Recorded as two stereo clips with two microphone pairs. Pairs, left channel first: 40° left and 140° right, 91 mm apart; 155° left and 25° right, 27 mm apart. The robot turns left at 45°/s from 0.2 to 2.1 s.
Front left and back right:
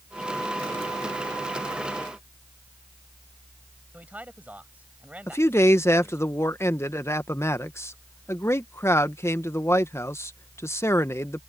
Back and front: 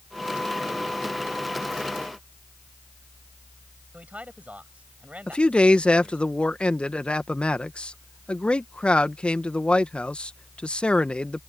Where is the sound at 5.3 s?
100° left.